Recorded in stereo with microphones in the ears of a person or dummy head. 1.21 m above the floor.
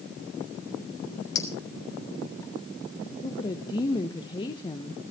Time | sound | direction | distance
1.4 | a clink | 20° left (ahead or behind) | 3 m
3.2 | a woman speaking | 20° left (ahead or behind) | 0.8 m